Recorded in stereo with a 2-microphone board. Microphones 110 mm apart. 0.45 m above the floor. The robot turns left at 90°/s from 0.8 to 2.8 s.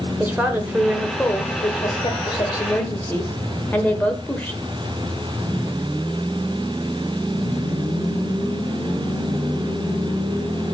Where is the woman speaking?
160° right, 1.2 m; by 4.6 s 20° left, 1.2 m.